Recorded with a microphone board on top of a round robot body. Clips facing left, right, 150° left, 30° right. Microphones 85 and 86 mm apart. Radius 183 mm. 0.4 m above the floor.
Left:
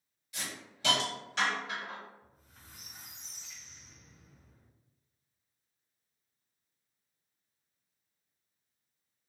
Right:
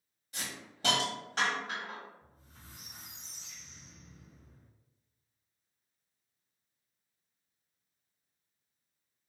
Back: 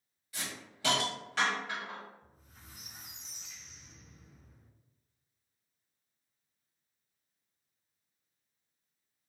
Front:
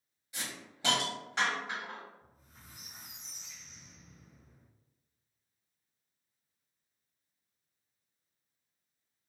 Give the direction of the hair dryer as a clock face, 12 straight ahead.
No hair dryer in this recording.